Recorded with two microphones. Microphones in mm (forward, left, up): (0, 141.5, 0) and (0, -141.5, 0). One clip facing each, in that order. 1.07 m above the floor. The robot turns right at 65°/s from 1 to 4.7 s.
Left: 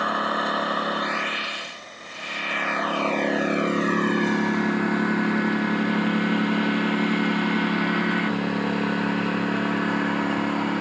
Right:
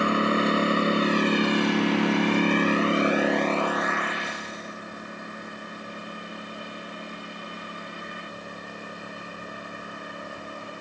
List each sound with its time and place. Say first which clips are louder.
0.0 s a lawn mower: right 5 dB; 150° right; by 10.8 s 90° left